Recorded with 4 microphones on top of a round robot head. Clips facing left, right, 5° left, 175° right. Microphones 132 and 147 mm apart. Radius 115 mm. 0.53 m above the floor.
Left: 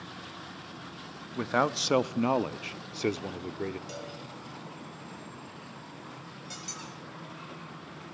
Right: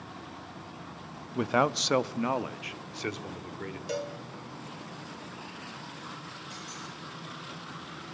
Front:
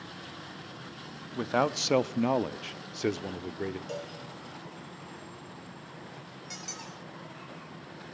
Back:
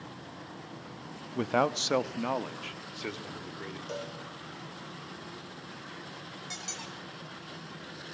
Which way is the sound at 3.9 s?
80° right.